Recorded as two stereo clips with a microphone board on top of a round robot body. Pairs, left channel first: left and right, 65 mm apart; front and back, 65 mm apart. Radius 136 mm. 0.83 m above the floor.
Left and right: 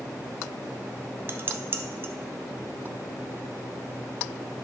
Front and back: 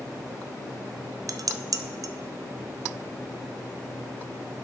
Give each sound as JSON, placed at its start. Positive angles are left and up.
{"t": 1.3, "sound": "dishes clattering", "azimuth_deg": -145, "distance_m": 0.5}